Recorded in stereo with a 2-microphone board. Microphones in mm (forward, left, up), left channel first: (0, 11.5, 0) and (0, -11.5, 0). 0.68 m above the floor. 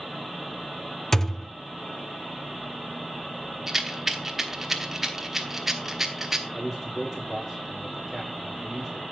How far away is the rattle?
About 1.2 m.